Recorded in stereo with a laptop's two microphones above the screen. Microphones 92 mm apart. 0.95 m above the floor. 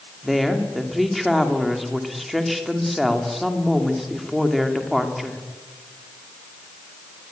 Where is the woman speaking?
Centre (ahead or behind), 1.9 m.